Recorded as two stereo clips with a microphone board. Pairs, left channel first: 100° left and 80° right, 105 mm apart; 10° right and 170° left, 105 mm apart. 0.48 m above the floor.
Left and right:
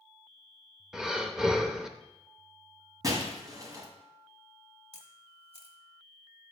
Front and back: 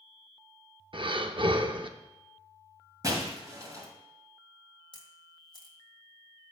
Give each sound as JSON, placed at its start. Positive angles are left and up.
{"t": 0.9, "sound": "breathing", "azimuth_deg": -160, "distance_m": 0.6}
{"t": 3.0, "sound": "breaking glass", "azimuth_deg": -135, "distance_m": 1.8}
{"t": 4.9, "sound": "a camera shutter", "azimuth_deg": -60, "distance_m": 1.2}